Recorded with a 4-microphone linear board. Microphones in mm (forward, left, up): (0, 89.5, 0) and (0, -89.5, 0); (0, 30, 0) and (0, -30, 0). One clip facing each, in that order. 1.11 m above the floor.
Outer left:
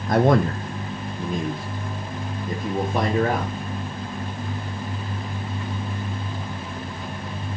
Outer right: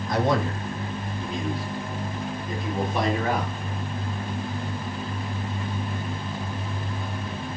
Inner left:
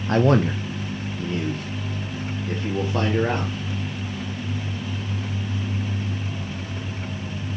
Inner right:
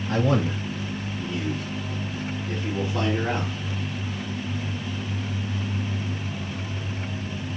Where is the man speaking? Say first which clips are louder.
Outer left 6 dB, inner left 5 dB; 50° left (ahead or behind), 0.7 m; by 3.5 s 45° left (ahead or behind), 2.5 m.